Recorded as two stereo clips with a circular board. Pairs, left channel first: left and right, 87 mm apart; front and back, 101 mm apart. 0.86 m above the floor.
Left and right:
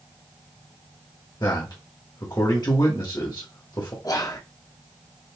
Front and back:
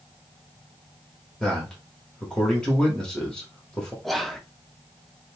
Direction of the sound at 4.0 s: 85° left.